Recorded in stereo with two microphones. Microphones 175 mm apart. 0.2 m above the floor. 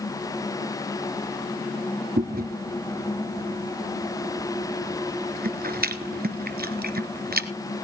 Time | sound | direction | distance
2.2 | chewing | 60° right (ahead or behind) | 1.3 m